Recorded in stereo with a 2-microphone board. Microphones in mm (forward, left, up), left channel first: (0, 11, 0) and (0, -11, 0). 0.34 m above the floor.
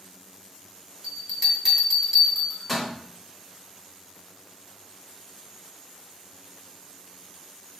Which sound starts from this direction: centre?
A bell, at 1.0 s.